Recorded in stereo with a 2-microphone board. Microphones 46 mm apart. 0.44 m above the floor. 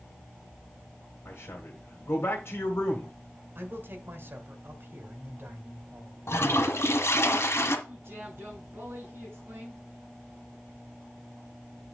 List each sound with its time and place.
1.2 s a man speaking: 65° left (ahead or behind), 1.8 m
3.5 s a man speaking: 55° right (ahead or behind), 1.8 m
6.3 s a toilet flushing: 75° left (ahead or behind), 1.3 m
7.9 s a man speaking: 55° right (ahead or behind), 6 m